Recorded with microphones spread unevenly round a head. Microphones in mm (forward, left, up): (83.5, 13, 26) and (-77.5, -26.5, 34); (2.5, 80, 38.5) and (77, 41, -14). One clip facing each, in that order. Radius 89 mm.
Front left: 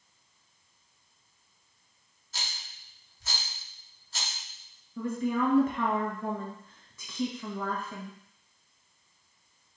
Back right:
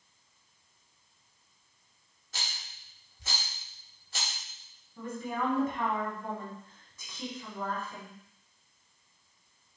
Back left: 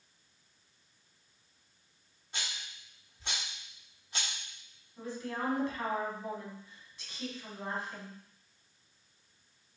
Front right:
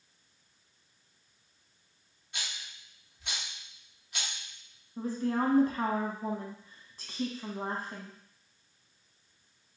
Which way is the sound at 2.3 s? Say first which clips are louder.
Even, back left 1 dB; 160° left.